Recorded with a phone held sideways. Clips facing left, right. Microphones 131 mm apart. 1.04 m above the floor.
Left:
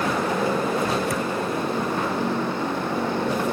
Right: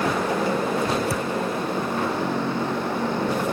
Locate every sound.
1.1 s a thud: 30° right (ahead or behind)